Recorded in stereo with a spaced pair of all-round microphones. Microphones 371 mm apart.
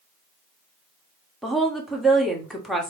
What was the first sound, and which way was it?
A woman speaking, centre (ahead or behind).